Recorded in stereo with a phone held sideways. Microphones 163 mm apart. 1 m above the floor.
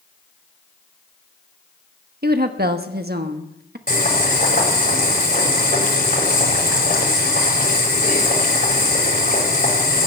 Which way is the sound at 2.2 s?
75° right (ahead or behind).